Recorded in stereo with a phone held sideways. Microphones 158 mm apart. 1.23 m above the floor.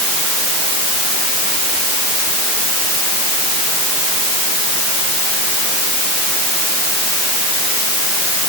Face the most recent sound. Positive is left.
No sound to turn to.